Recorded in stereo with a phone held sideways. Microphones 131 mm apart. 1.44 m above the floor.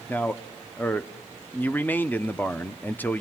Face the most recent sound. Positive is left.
turn(degrees=15)  # may be behind; listen again after turning